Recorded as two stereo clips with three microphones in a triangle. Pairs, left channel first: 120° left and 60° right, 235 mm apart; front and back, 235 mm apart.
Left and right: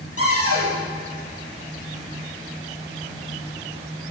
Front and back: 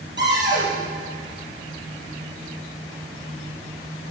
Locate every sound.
0.2 s a cupboard door: 140° left, 4.5 m